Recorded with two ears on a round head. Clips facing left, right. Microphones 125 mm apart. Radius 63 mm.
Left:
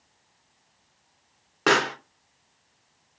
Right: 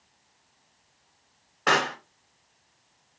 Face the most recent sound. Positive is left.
turn(degrees=85)